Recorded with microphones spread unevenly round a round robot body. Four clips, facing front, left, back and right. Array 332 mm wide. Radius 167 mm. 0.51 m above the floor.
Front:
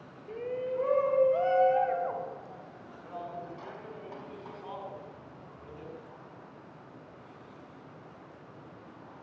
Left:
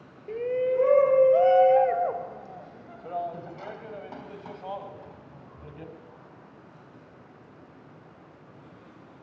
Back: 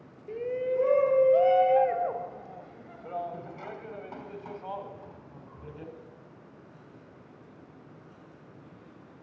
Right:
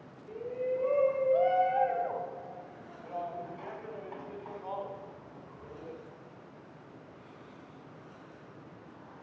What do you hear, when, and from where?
0.3 s a shout: 95° left, 3 m; by 5.9 s 135° left, 4.5 m